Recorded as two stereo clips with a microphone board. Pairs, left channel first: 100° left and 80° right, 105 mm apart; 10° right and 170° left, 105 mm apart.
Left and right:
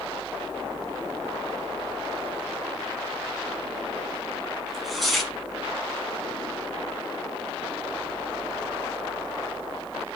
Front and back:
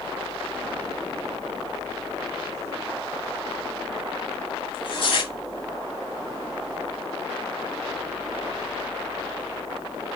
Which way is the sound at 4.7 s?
10° left.